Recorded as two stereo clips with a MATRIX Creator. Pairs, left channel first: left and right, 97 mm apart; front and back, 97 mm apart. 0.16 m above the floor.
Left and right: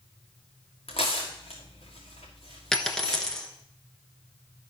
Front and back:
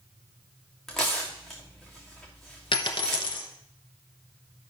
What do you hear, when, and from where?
0.9 s tearing paper: 85° left, 3 m
2.7 s a dropped coin: 5° left, 1.1 m